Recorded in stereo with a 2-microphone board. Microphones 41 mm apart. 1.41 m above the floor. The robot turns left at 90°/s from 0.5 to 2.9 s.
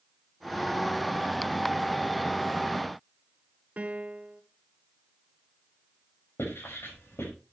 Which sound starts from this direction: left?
Writing, at 6.4 s.